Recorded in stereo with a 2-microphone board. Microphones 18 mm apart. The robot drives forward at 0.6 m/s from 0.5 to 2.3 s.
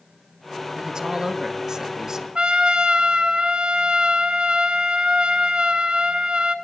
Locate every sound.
0.8 s a man speaking: 40° right (ahead or behind), 1.6 m; by 2.2 s 25° right (ahead or behind), 2.5 m
2.4 s a trumpet: 60° right (ahead or behind), 2 m